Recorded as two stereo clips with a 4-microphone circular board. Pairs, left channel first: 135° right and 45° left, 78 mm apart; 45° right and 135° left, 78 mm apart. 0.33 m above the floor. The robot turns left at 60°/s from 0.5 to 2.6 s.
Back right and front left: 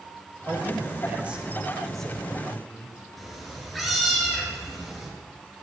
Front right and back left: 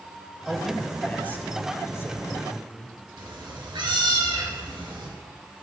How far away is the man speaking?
About 1.0 m.